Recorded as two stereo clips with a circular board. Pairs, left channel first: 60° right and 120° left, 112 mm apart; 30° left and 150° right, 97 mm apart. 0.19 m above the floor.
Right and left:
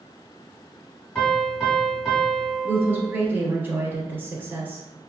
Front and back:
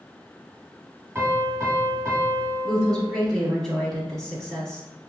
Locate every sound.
1.1 s a piano: 145° right, 1.4 m
2.6 s a woman speaking: 105° left, 1.0 m